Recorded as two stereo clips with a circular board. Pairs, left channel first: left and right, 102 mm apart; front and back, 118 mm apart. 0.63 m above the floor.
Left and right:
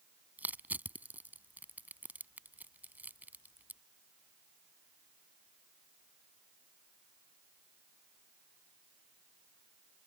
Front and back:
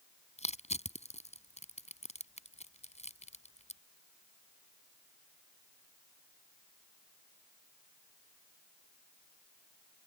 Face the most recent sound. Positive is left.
turn(degrees=-15)